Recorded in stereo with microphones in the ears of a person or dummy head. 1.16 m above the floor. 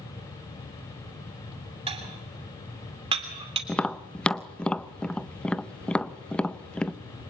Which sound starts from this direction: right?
Dishes clattering, at 1.9 s.